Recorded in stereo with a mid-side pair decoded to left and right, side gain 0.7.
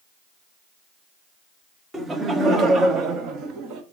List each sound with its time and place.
1.9 s laughter: 20° right, 1.6 m; by 3.8 s 60° right, 1.6 m